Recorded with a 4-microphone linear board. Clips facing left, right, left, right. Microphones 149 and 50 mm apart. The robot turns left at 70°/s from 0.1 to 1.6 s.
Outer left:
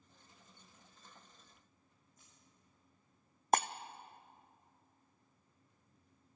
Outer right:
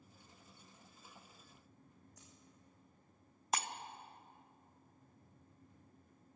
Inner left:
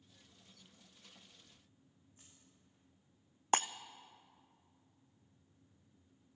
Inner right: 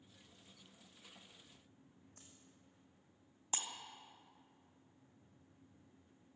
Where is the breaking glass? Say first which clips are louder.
Outer left 8 dB, inner left 13 dB; 50° left (ahead or behind), 0.5 m.